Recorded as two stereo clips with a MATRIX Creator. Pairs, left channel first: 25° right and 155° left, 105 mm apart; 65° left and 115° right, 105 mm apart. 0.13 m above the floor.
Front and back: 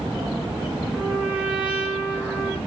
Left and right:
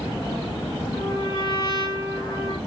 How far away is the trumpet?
About 1.4 m.